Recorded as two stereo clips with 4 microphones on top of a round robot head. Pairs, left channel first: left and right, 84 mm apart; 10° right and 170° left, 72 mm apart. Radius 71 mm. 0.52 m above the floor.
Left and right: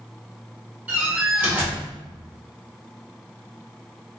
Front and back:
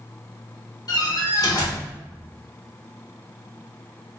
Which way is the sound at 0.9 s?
20° right.